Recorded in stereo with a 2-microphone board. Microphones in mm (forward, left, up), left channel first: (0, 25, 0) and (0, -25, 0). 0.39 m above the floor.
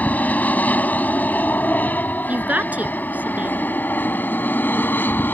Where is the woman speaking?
35° right (ahead or behind).